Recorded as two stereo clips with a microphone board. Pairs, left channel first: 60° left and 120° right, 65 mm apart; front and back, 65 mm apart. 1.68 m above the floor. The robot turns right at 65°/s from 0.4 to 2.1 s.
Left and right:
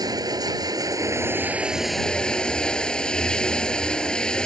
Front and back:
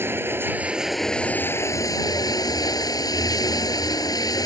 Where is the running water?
125° right; by 4.5 s 15° right.